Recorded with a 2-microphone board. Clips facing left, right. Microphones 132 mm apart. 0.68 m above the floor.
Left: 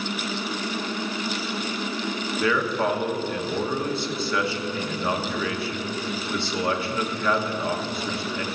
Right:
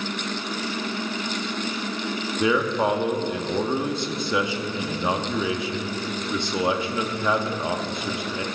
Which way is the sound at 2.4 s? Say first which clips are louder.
Right 2 dB; 15° right (ahead or behind).